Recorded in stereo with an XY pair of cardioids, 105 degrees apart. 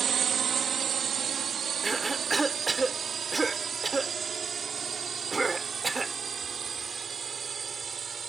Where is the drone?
50° right; by 8.3 s 35° right.